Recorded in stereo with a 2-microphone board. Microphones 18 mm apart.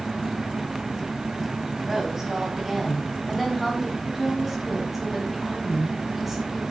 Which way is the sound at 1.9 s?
30° right (ahead or behind).